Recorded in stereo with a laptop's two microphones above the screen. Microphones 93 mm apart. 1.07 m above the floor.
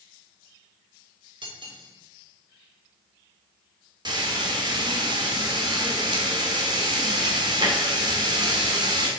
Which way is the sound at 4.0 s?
50° right (ahead or behind).